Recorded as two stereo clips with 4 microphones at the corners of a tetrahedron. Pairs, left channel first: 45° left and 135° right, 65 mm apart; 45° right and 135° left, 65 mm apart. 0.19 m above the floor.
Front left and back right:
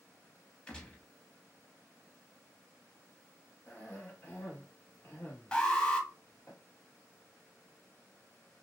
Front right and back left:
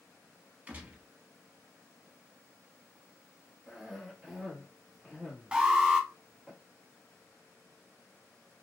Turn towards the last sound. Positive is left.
turn(degrees=95)